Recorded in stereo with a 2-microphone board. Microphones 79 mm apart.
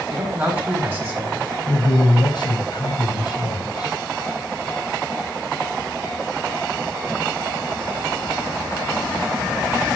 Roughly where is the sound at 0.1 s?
Right.